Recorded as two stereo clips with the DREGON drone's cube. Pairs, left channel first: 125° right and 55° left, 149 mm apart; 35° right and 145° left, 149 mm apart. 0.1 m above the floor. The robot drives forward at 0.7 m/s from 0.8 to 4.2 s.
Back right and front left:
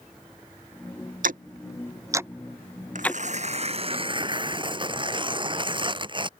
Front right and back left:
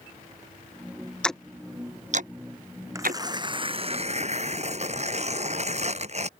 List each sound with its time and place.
1.2 s ticking: 50° left; by 4.0 s 165° left
3.0 s tearing paper: 80° left; by 6.3 s 110° left